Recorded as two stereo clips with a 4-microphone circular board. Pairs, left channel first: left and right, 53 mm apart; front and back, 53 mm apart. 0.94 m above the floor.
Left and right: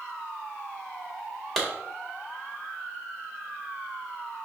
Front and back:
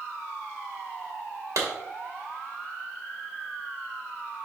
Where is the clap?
175° left, 2 m.